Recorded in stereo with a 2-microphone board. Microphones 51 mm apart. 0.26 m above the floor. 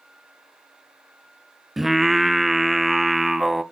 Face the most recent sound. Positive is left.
turn(degrees=-5)  # may be behind; listen again after turning